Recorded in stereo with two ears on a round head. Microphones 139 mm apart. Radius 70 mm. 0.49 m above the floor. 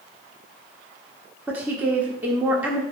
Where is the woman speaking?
10° right (ahead or behind), 1.3 m.